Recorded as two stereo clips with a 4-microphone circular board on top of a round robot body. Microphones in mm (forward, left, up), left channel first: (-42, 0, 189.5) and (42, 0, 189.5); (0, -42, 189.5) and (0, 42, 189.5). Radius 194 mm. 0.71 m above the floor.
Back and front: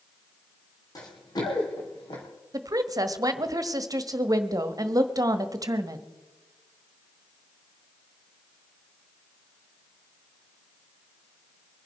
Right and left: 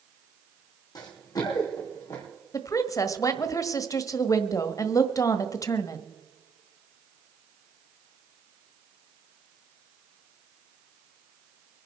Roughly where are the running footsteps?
Behind right.